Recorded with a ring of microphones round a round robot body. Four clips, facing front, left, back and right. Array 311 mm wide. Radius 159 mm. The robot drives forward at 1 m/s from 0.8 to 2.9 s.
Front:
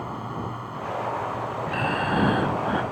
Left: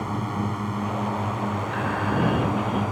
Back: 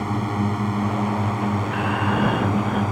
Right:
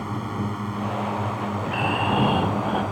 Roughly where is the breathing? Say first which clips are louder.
Right 5 dB, back 2 dB; ahead right.